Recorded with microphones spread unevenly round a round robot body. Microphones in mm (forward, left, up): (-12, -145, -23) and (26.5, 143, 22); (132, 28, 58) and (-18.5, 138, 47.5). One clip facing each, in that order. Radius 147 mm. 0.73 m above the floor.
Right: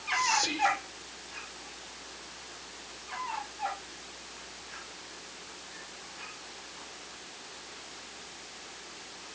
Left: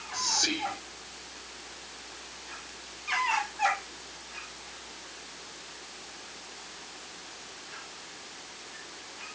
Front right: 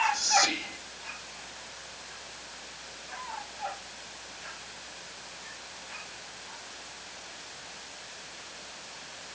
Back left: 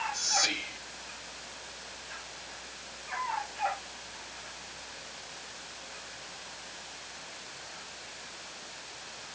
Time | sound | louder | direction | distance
0.1 | whispering | left 1 dB, front right 7 dB | 10° left | 2.5 m